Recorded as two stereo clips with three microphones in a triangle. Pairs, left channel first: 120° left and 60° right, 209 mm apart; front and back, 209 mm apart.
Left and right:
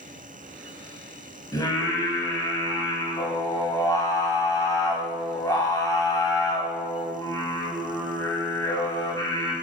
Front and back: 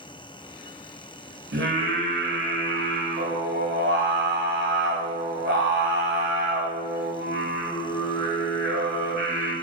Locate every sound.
1.5 s singing: 170° right, 1.4 m